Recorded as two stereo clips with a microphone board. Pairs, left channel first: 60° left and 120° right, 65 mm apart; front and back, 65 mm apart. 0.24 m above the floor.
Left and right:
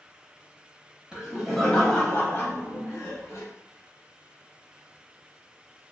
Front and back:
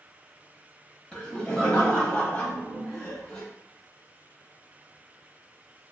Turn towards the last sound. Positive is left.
turn(degrees=55)